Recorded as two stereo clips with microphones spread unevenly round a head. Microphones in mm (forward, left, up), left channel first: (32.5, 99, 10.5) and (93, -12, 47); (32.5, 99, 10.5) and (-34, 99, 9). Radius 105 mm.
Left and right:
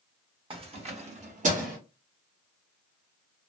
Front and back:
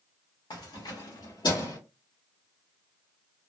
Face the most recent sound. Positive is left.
turn(degrees=-45)